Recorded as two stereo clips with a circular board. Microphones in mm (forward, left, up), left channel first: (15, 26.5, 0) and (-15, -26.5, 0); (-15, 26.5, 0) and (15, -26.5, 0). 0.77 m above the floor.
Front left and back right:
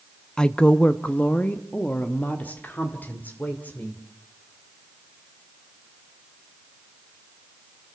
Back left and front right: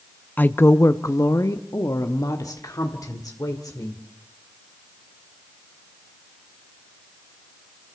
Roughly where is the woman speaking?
Behind left.